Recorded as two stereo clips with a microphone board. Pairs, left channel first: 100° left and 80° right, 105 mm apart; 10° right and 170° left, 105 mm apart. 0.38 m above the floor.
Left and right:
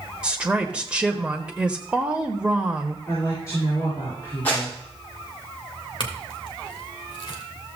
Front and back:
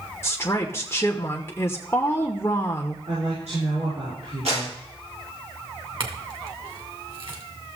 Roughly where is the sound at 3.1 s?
Behind.